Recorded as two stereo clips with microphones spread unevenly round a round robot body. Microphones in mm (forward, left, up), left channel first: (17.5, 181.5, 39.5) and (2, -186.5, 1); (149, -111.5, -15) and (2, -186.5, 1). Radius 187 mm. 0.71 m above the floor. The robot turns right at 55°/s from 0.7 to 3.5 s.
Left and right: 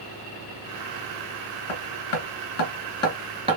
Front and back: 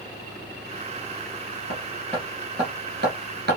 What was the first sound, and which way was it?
Hammering, 90° left.